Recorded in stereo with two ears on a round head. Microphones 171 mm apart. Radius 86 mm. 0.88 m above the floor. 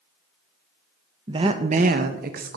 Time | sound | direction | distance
1.3 | a woman speaking | 25° right (ahead or behind) | 0.5 m